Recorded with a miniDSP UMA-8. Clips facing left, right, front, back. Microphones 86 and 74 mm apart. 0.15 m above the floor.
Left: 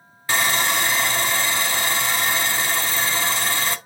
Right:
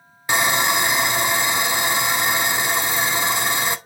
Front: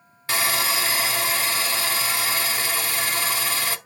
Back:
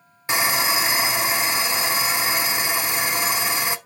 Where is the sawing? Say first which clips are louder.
Right 2 dB, back 2 dB; 135° right, 0.5 m.